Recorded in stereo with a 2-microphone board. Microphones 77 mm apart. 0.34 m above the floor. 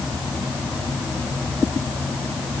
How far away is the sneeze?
I don't hear a sneeze.